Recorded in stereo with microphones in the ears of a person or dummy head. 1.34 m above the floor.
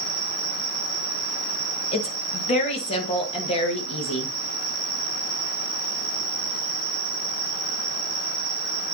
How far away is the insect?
About 1.4 m.